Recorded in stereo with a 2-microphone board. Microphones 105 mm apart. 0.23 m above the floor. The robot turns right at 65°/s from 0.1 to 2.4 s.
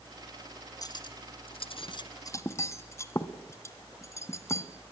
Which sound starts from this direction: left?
Cutlery clinking, at 0.8 s.